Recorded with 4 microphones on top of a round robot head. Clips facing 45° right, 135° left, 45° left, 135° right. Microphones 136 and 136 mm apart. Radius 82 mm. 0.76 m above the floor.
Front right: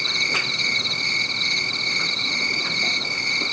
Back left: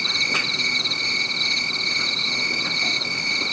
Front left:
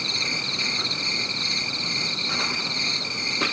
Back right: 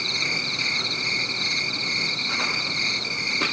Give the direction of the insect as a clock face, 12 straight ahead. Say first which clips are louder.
Even, even; 8 o'clock.